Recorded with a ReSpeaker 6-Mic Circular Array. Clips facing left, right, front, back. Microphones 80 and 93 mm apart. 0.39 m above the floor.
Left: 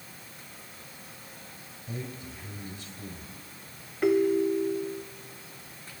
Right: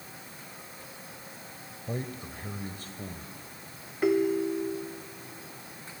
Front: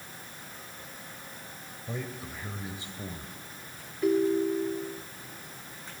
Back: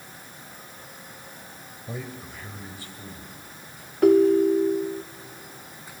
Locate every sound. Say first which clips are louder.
1.9 s a man speaking: right 3 dB, back 1 dB; 100° right, 1.8 m; by 3.3 s 50° right, 2 m
4.0 s a ringtone: left 2 dB, back 8 dB; straight behind, 0.5 m